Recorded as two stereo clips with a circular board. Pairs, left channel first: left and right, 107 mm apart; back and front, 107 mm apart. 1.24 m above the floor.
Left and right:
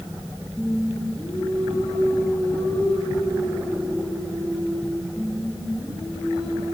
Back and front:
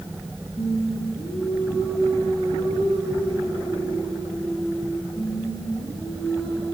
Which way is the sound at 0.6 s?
160° left.